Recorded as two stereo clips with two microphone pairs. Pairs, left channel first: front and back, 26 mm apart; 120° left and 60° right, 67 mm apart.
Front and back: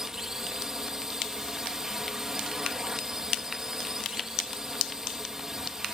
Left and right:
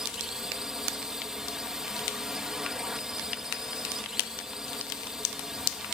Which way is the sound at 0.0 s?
130° right.